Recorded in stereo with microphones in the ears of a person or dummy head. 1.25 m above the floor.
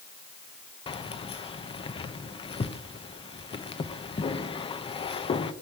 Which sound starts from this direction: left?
Keys jangling, at 0.9 s.